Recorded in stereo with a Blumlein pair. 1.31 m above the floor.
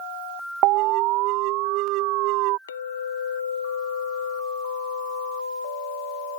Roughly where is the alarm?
Ahead right.